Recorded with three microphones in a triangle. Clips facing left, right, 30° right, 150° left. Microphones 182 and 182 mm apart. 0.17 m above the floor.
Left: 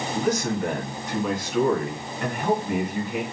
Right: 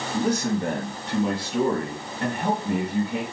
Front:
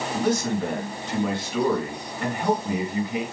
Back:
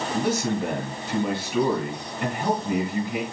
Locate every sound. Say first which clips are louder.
0.1 s a man speaking: right 1 dB, front 1 dB; 135° right, 1.9 m